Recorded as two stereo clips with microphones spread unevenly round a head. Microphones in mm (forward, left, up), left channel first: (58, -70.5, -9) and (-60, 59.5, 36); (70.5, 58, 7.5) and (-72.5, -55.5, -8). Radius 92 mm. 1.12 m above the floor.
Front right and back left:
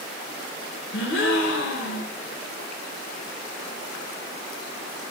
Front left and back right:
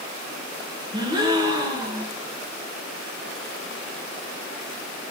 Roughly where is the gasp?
Right.